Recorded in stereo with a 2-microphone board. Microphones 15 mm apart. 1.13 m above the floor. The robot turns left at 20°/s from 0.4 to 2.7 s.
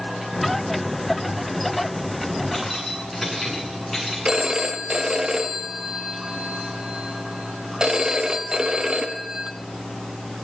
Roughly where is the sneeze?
No sneeze in this recording.